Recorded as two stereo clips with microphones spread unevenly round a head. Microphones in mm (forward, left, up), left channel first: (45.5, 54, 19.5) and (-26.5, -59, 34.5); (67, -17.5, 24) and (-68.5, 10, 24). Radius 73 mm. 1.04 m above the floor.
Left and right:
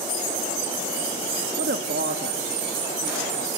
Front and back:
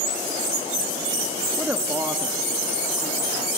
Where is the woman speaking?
110° right, 1.2 m; by 3.5 s 115° right, 2.5 m.